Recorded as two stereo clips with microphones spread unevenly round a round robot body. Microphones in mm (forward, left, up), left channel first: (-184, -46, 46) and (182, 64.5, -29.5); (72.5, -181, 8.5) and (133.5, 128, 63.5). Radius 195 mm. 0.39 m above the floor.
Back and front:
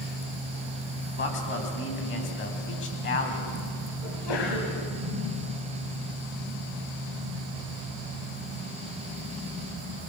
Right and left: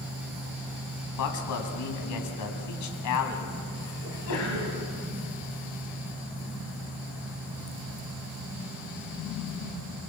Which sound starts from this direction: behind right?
A sneeze, at 4.0 s.